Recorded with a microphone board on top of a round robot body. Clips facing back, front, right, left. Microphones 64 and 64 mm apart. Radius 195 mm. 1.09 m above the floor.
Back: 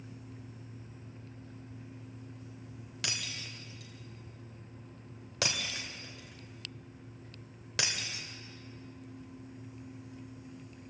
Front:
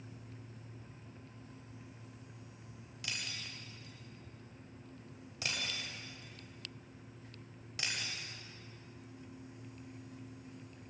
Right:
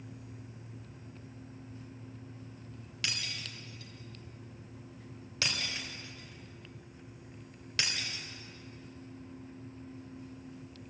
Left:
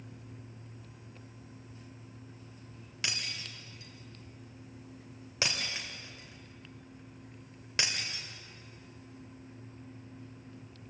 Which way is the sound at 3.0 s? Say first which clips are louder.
Back 3 dB, left 1 dB; 155° left.